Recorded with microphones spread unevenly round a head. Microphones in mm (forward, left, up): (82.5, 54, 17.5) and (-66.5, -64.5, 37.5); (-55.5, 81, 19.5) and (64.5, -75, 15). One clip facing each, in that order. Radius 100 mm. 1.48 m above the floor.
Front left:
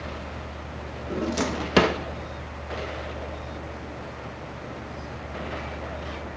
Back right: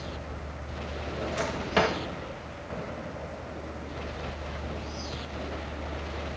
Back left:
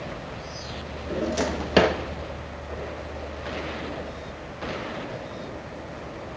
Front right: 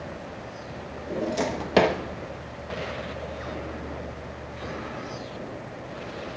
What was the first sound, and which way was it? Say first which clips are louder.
A drawer: front left 7 dB, back left 1 dB; 45° left.